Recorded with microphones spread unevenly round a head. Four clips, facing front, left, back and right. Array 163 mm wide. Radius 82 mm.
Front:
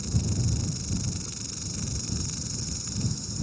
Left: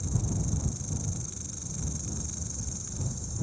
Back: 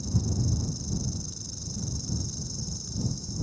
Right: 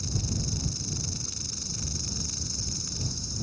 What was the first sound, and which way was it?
An insect, 25° right.